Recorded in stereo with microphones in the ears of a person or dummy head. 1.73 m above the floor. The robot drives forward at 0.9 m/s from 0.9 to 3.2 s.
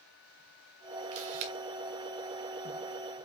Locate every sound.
1.1 s a camera shutter: 45° right (ahead or behind), 2 m; by 1.5 s 50° right (ahead or behind), 2.0 m